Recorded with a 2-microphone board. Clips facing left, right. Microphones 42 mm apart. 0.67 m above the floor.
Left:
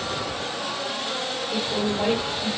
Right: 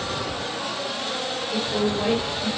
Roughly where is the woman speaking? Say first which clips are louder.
Right 2 dB; left.